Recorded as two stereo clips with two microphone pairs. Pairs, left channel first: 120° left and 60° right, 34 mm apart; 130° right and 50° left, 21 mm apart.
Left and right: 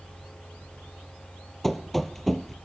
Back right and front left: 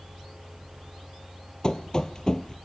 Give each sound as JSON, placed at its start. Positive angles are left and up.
{"t": 1.6, "sound": "running footsteps", "azimuth_deg": -155, "distance_m": 1.2}